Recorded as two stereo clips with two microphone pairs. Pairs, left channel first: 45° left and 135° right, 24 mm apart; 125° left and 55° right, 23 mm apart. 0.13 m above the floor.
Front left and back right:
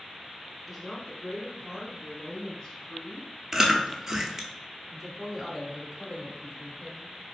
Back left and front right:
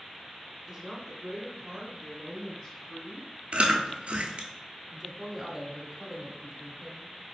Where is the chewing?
65° right, 0.6 m.